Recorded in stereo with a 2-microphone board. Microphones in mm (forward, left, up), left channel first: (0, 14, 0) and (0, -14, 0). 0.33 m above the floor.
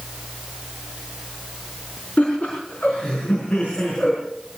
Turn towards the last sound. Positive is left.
turn(degrees=65)  # may be behind; listen again after turning